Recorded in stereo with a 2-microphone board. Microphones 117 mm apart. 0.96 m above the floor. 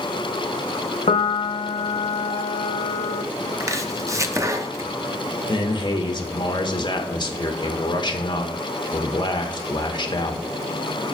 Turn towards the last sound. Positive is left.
turn(degrees=40)  # may be behind; listen again after turning